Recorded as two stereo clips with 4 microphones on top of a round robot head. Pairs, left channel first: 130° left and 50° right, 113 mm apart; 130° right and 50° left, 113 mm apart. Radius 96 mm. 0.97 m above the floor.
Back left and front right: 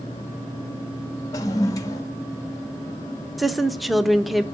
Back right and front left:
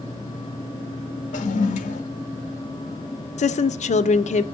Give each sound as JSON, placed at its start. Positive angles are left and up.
{"t": 1.3, "sound": "a toilet flushing", "azimuth_deg": -160, "distance_m": 0.7}
{"t": 3.4, "sound": "a woman speaking", "azimuth_deg": -135, "distance_m": 0.8}